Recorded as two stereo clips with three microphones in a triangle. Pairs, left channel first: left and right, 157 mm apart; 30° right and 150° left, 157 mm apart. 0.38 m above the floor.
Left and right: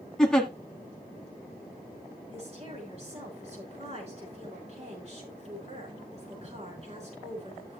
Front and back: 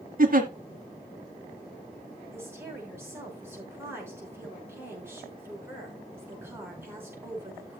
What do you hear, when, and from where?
0.2 s a giggle: 175° left, 1.3 m
2.3 s a woman speaking: 135° right, 5.5 m